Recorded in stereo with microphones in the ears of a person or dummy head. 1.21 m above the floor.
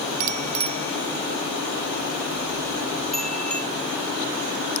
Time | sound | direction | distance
0.2 | a bicycle bell | 45° right (ahead or behind) | ?